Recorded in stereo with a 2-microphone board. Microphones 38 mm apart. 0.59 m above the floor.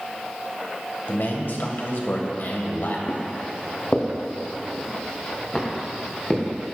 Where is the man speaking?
70° left (ahead or behind), 2.5 m.